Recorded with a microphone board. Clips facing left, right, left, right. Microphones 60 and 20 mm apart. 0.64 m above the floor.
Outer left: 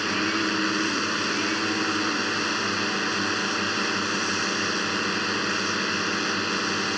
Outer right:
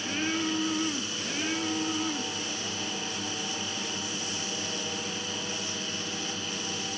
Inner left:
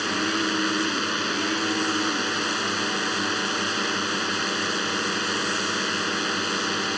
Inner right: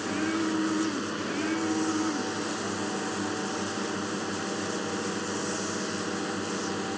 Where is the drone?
65° left (ahead or behind).